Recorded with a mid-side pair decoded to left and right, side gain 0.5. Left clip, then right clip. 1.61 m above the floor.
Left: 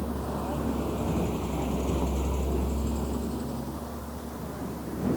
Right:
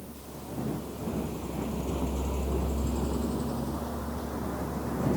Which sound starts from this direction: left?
A vehicle, at 0.0 s.